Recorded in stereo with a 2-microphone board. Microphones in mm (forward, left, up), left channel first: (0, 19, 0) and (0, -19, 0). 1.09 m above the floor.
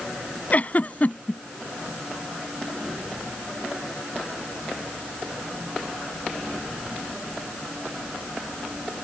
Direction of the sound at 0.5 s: 45° left (ahead or behind).